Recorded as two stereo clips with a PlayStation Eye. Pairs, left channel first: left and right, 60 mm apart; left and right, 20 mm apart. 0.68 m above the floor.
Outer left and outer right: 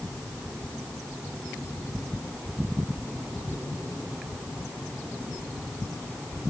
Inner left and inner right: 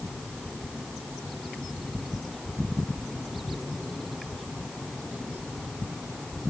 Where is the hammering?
No hammering in this recording.